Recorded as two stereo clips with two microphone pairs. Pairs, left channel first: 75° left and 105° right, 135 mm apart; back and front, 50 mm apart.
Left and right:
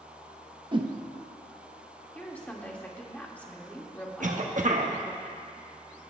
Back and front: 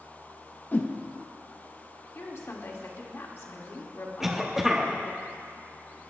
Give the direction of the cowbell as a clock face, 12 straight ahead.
I don't hear a cowbell.